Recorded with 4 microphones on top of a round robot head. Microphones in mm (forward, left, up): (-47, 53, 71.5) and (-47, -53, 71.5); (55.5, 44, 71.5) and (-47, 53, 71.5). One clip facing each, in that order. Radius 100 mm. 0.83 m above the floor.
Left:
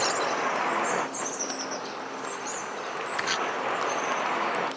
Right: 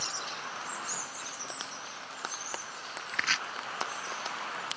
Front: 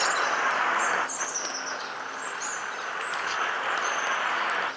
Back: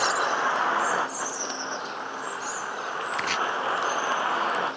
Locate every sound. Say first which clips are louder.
0.0 s a vehicle: left 14 dB, back 2 dB; 100° left; by 4.8 s 110° left
3.1 s chopping: left 4 dB, back 3 dB; 170° left